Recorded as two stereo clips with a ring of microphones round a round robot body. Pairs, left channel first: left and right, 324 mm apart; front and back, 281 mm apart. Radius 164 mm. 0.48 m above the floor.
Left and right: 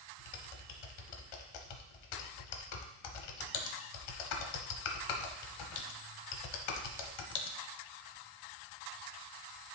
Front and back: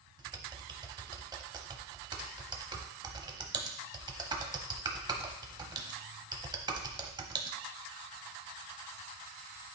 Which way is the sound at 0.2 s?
105° left.